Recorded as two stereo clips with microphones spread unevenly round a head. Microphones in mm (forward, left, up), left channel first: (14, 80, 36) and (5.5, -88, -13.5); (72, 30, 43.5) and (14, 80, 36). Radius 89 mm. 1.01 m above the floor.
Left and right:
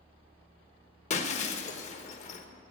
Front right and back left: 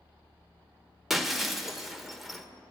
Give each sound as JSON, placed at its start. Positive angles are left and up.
{"t": 1.1, "sound": "breaking glass", "azimuth_deg": 50, "distance_m": 1.2}